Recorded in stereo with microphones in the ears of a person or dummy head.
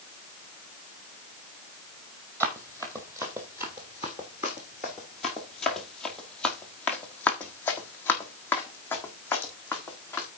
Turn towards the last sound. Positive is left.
turn(degrees=15)  # may be behind; listen again after turning